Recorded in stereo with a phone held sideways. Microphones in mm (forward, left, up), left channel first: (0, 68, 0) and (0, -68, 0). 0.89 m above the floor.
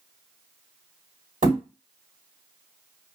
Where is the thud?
75° right (ahead or behind), 1.7 m.